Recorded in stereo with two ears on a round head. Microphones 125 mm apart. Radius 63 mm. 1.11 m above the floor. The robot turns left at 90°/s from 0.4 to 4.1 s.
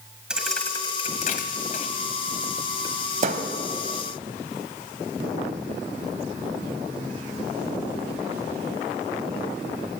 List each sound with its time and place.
0.3 s a thud: 5° right (ahead or behind), 1.6 m; by 3.5 s 60° right (ahead or behind), 1.6 m